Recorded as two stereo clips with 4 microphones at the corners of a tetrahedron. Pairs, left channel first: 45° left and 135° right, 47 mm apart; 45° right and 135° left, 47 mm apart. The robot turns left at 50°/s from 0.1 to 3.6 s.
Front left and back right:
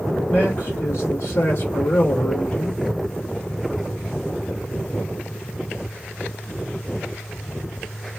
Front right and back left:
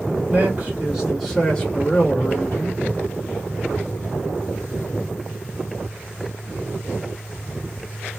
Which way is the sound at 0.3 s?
95° left.